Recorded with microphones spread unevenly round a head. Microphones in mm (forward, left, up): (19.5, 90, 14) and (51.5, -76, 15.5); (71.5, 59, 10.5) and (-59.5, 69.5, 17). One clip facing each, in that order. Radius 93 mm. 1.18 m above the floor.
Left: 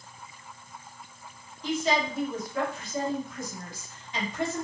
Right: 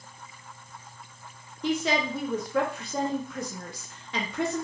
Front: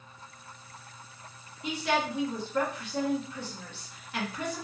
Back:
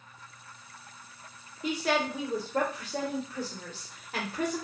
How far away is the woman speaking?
About 0.7 m.